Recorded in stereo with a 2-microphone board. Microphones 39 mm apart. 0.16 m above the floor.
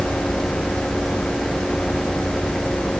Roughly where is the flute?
No flute in this recording.